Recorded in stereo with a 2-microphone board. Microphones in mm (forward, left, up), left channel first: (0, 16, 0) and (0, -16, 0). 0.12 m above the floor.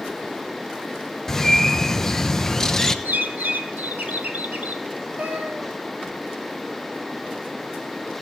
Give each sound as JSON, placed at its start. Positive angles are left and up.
{"t": 1.3, "sound": "a bird", "side_deg": 15, "distance_m": 0.7}
{"t": 3.0, "sound": "a bird", "side_deg": -75, "distance_m": 1.1}
{"t": 5.2, "sound": "a cat meowing", "side_deg": -70, "distance_m": 1.7}